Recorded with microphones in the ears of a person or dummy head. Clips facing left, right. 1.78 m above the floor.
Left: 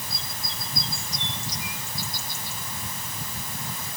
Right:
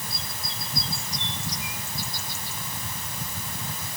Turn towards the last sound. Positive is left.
No sound to turn to.